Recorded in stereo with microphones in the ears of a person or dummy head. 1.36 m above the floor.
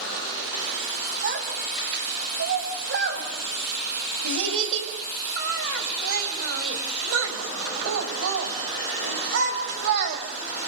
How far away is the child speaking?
About 5.5 m.